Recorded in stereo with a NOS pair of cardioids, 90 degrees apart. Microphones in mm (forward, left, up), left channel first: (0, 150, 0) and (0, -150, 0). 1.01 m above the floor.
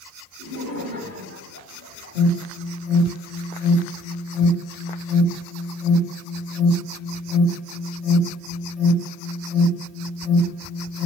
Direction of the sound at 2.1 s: 65° left.